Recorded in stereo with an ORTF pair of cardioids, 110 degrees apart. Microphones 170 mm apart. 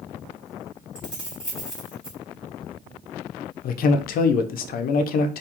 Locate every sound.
0.9 s keys jangling: 5° right, 1.6 m
3.6 s a man speaking: 60° left, 0.5 m